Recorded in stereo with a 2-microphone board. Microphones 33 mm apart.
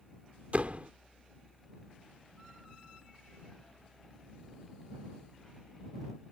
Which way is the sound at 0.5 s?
50° right (ahead or behind).